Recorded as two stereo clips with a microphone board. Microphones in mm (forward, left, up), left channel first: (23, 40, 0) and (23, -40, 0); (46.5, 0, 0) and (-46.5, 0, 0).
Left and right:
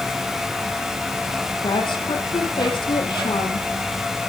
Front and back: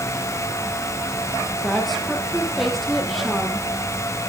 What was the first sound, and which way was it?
A woman speaking, 90° left.